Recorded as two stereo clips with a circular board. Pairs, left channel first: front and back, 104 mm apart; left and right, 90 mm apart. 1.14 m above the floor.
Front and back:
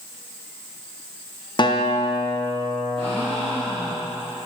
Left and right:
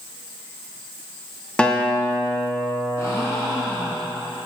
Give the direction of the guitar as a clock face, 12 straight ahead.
12 o'clock.